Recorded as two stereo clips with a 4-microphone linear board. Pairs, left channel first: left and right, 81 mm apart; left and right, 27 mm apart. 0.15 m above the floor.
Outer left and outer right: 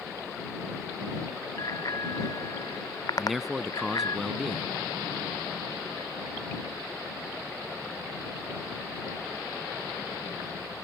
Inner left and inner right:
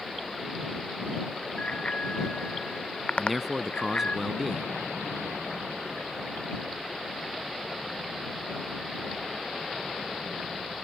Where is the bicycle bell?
50° left (ahead or behind).